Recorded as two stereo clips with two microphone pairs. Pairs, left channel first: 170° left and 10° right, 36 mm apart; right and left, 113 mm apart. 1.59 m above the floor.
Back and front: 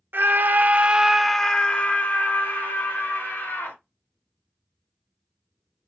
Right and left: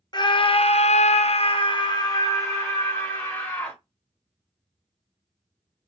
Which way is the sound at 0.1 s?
40° right.